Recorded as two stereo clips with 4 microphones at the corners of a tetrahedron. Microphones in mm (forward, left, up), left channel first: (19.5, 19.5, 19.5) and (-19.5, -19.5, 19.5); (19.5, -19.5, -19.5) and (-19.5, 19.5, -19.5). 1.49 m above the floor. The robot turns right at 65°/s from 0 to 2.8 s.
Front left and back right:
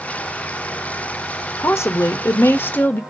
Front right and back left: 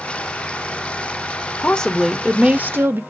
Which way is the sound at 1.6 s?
15° left.